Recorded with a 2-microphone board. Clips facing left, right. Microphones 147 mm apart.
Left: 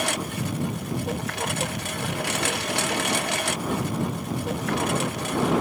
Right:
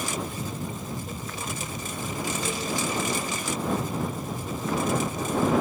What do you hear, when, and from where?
0.0 s a lawn mower: 70° left (ahead or behind)